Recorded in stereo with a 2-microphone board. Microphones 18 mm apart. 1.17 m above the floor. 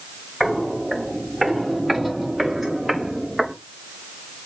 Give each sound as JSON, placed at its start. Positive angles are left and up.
{"t": 0.4, "sound": "footsteps", "side_deg": 10, "distance_m": 6.5}